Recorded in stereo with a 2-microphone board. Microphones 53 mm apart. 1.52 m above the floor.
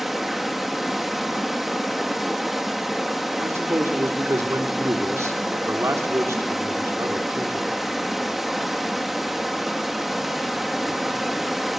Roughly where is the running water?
Centre.